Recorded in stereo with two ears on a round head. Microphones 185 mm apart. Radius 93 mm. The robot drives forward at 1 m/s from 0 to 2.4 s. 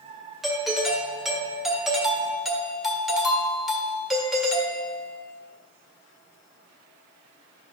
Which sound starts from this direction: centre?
A doorbell, at 0.4 s.